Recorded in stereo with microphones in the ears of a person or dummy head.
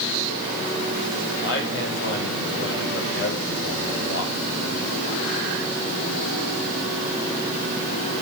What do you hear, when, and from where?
1.4 s a man speaking: 65° left (ahead or behind), 6.5 m